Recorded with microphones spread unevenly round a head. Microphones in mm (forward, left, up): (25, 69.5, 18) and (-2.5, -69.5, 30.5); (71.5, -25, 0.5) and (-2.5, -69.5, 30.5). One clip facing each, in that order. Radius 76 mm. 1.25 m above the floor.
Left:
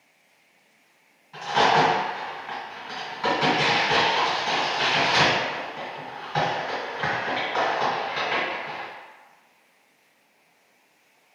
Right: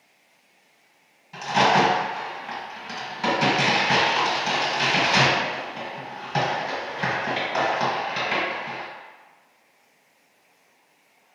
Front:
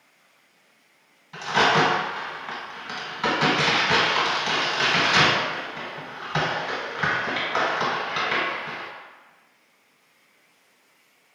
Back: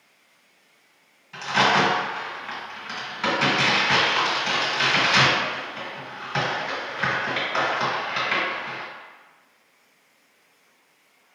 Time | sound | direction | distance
1.3 | a crack | 60° right | 1.6 m